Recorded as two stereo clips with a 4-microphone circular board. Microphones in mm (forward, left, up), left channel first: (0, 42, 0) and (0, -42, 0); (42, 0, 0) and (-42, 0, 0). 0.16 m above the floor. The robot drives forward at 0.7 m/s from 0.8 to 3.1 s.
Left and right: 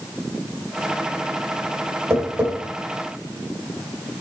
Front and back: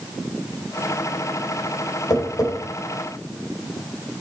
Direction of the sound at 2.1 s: 35° right.